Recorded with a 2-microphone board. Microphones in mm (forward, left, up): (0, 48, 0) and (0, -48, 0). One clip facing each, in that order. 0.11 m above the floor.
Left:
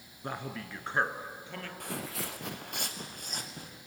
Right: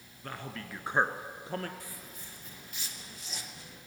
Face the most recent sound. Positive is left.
turn(degrees=45)  # may be behind; listen again after turning